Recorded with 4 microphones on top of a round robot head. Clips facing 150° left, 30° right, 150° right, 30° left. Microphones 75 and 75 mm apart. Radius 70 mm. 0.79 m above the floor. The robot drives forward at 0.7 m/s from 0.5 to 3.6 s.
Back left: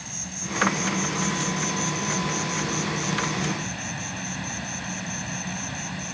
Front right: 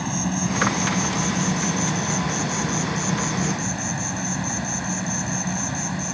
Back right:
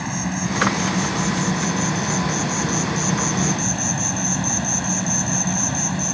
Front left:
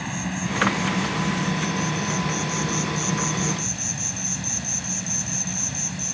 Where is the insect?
70° right; by 6.2 s 100° right.